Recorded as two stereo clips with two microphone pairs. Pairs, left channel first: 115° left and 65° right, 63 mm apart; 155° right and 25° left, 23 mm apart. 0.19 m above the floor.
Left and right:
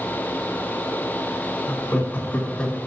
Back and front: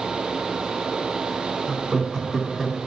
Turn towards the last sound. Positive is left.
turn(degrees=80)